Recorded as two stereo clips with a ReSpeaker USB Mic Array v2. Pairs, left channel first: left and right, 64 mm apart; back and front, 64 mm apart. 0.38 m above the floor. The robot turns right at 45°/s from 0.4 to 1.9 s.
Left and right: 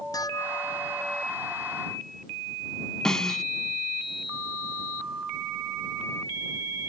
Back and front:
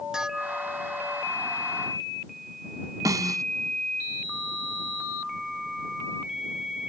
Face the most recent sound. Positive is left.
turn(degrees=10)